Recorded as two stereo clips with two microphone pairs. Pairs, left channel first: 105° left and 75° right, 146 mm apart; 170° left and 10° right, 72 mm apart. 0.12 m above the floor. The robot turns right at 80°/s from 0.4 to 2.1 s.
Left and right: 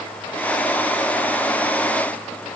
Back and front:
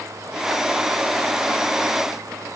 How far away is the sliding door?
I don't hear a sliding door.